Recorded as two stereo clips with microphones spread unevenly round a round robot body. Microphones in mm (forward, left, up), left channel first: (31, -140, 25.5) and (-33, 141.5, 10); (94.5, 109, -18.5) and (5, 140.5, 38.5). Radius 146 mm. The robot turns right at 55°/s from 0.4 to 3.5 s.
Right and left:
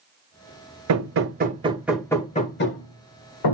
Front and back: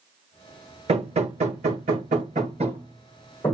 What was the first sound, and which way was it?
Hammering, 135° left.